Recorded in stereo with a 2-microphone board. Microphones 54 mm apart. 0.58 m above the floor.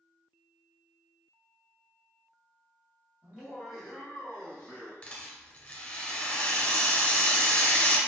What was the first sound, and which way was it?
Laughter, 20° right (ahead or behind).